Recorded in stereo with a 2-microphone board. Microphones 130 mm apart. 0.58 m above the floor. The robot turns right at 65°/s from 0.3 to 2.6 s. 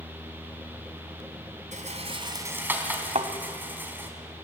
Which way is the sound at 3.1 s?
60° right (ahead or behind).